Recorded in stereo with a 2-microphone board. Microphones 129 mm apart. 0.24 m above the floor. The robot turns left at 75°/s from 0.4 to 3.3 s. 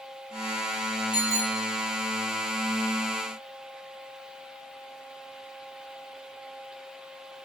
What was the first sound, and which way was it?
A bicycle bell, 35° left.